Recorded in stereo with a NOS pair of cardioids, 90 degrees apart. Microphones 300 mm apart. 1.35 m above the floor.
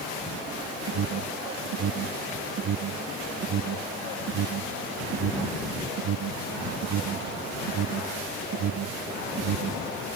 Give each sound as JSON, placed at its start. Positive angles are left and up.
{"t": 0.9, "sound": "an alarm", "azimuth_deg": -70}